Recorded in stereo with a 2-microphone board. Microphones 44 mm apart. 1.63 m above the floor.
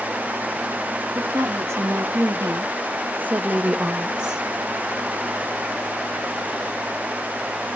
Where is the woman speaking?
80° right, 1.6 m; by 4.4 s 15° right (ahead or behind), 1.4 m.